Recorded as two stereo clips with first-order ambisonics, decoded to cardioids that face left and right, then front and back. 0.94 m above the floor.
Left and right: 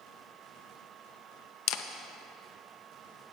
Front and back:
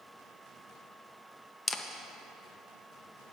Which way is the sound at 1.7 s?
75° left.